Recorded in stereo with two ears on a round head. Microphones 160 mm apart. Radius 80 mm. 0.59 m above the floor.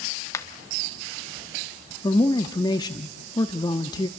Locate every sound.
0.3 s a finger snap: 15° left (ahead or behind), 0.9 m
2.0 s a man speaking: 25° left (ahead or behind), 0.8 m